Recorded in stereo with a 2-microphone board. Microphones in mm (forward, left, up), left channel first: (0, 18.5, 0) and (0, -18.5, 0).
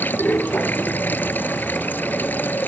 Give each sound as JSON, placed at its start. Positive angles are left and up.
{"t": 0.0, "sound": "running water", "side_deg": 60}